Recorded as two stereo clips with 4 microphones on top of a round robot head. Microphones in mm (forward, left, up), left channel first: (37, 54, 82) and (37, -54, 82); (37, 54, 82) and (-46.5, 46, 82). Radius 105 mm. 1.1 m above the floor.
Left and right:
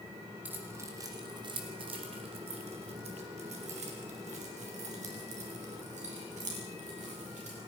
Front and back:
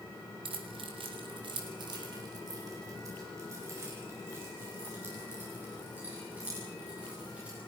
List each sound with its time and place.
0.5 s keys jangling: 165° right, 3 m; by 7.6 s 95° right, 10 m